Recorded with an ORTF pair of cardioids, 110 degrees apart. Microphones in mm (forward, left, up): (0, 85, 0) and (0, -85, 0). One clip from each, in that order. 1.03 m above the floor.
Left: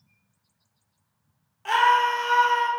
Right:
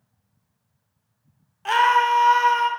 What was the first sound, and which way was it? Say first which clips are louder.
A scream: right 2 dB; 20° right.